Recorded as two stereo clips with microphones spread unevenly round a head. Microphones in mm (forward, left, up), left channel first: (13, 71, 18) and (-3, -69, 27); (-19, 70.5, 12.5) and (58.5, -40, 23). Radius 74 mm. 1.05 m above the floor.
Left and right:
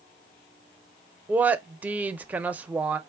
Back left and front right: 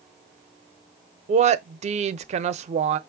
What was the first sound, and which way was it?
A woman speaking, 15° right.